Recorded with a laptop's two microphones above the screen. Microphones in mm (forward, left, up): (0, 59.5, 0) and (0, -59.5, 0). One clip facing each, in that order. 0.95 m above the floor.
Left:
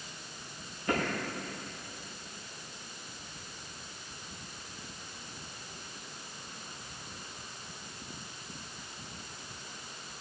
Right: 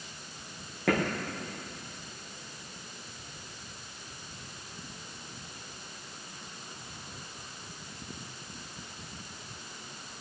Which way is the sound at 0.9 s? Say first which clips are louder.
Right 4 dB; 80° right.